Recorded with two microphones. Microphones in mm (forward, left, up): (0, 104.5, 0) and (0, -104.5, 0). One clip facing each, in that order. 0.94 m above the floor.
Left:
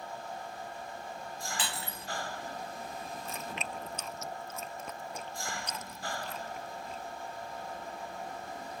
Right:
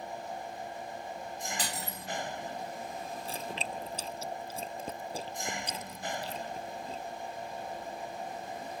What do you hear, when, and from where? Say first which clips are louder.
0.0 s an engine running: right 2 dB; 20° right (ahead or behind)
1.6 s breaking glass: right 1 dB; 45° right (ahead or behind)
3.2 s chewing: right 2 dB; 35° right (ahead or behind)